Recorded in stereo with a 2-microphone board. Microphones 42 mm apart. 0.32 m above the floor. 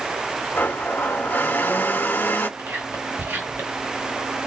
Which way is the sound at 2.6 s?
60° right (ahead or behind).